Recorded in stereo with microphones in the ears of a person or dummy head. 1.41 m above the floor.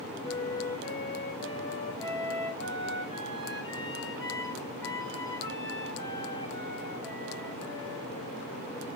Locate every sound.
0.2 s a flute: 25° left (ahead or behind), 4.5 m